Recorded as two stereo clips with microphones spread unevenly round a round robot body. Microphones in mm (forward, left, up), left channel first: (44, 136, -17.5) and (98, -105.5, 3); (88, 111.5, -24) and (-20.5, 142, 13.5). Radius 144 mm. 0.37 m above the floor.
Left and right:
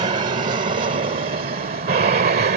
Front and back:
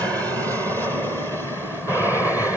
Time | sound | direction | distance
0.0 | an aircraft | 120° right | ?